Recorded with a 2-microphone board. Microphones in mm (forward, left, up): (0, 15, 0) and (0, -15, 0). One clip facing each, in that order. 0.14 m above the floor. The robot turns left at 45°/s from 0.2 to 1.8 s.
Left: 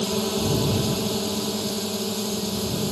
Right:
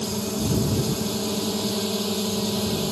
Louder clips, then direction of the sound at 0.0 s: Left 3 dB; 60° left.